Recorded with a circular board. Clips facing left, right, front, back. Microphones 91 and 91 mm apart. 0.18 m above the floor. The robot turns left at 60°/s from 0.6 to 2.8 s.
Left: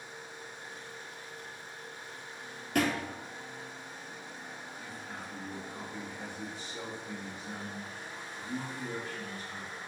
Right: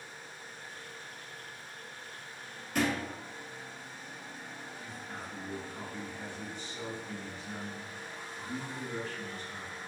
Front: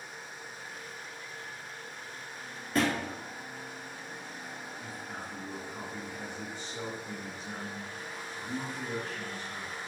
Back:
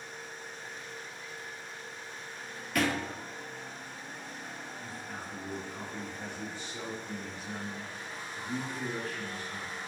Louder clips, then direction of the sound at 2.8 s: Left 1 dB, front 1 dB; 60° left.